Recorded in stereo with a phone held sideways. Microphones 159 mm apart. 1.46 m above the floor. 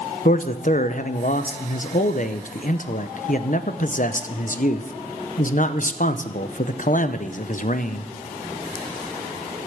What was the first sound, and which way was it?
A man speaking, 55° left (ahead or behind).